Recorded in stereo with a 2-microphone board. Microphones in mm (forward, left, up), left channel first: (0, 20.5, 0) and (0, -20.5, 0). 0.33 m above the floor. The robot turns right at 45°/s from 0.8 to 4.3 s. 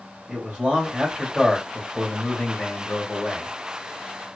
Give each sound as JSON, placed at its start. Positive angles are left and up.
{"t": 0.3, "sound": "a man speaking", "azimuth_deg": -40, "distance_m": 1.7}